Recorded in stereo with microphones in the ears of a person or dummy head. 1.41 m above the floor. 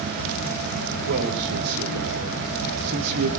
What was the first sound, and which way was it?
A man speaking, 85° right.